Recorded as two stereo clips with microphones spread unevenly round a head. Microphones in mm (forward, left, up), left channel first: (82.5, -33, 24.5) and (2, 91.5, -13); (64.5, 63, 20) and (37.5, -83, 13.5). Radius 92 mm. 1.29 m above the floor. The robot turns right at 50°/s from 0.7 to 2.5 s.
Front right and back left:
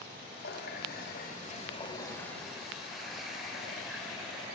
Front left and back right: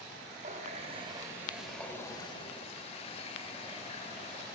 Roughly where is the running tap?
Ahead right.